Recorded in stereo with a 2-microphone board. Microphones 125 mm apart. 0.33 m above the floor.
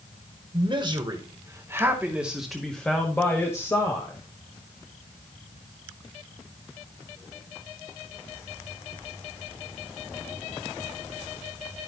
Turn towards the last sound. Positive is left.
turn(degrees=30)  # may be behind; listen again after turning